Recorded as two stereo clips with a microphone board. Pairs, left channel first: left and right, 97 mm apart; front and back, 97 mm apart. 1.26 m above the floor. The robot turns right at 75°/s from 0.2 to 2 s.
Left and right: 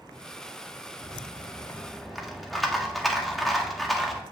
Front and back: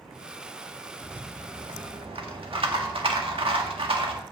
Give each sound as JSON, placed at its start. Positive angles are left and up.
{"t": 1.0, "sound": "a rattle", "azimuth_deg": 105, "distance_m": 1.6}